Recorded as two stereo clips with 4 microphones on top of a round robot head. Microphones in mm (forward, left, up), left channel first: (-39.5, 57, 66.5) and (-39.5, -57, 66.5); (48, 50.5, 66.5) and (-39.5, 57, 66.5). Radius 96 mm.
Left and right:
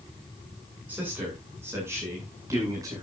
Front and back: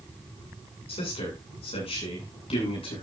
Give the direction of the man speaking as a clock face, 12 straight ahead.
12 o'clock.